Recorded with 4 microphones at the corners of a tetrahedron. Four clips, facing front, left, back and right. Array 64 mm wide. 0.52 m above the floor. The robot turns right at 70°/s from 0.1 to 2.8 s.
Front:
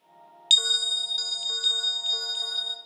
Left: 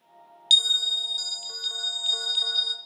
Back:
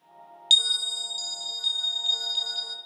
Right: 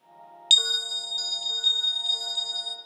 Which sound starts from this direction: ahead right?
A bell, at 0.5 s.